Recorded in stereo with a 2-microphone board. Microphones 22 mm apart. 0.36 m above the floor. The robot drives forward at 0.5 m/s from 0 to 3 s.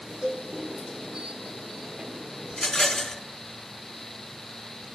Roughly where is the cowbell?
Right.